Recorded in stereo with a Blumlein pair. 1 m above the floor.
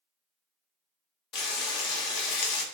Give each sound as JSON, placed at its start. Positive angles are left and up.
{"t": 1.3, "sound": "frying", "azimuth_deg": 35, "distance_m": 0.7}